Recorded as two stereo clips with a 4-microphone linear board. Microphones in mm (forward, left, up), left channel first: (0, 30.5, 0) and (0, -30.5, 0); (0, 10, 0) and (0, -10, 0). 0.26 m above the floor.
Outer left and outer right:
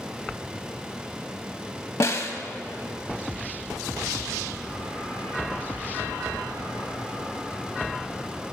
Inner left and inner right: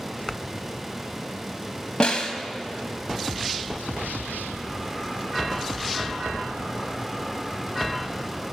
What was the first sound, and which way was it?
A snare drum, 50° left (ahead or behind).